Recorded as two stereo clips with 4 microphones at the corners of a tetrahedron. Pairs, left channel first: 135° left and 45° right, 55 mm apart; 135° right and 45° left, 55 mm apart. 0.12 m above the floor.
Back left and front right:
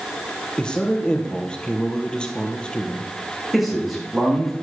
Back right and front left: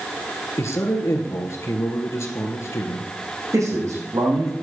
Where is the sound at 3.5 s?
45° left, 6 m.